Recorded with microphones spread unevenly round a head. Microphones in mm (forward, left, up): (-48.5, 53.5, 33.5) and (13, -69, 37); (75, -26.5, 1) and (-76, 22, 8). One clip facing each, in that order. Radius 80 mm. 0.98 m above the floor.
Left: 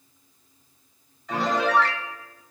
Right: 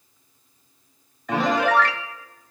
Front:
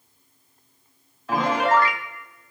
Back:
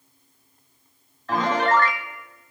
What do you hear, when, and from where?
1.3 s a piano: 100° right, 0.7 m